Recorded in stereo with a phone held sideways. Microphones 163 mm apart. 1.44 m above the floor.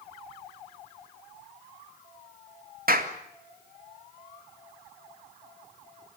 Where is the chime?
No chime in this recording.